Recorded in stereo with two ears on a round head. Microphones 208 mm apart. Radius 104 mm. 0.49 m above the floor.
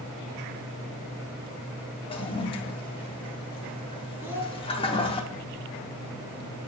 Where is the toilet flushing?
25° left (ahead or behind), 0.7 m.